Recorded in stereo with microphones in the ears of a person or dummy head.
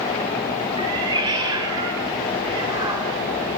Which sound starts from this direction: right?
A cat meowing, at 0.8 s.